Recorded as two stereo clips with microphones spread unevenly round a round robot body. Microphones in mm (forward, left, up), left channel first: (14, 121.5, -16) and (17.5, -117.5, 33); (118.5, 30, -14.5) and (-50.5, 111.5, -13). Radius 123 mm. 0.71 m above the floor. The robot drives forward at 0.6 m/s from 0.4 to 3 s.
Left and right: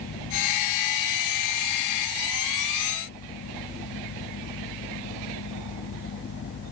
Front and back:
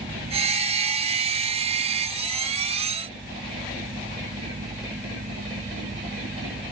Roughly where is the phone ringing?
No phone ringing in this recording.